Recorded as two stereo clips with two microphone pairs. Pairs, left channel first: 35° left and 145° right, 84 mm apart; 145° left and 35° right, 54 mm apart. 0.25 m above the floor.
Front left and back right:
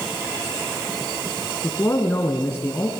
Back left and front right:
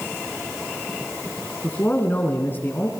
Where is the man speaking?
95° left, 2.5 m.